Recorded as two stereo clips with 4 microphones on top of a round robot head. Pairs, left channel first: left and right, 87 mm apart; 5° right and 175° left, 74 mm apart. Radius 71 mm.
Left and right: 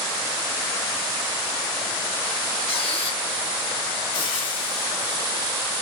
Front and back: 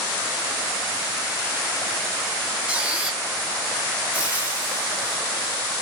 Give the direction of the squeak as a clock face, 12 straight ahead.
9 o'clock.